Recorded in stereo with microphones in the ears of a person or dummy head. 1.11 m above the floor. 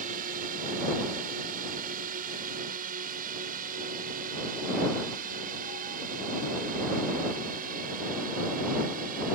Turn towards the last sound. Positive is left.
turn(degrees=-45)  # may be behind; listen again after turning